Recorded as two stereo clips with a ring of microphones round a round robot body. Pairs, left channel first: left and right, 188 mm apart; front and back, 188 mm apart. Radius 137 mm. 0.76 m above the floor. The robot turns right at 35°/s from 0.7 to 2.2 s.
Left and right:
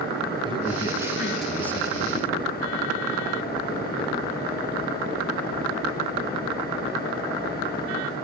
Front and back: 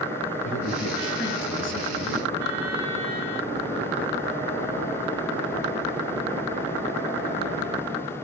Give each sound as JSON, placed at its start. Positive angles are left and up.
{"t": 0.4, "sound": "a man speaking", "azimuth_deg": -25, "distance_m": 4.0}